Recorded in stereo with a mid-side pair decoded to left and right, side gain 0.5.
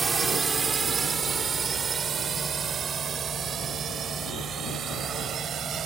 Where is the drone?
30° right; by 5.9 s 55° right.